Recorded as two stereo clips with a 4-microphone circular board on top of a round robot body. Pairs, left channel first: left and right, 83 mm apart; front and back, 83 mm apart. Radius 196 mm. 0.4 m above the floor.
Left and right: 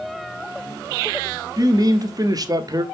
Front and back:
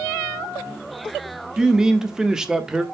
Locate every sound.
1.6 s a man speaking: 100° right, 1.8 m